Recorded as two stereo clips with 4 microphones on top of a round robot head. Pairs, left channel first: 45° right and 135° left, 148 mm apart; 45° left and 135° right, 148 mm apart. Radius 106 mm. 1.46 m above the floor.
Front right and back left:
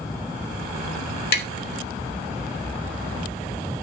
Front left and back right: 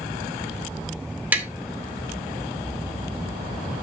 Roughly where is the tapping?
Ahead right.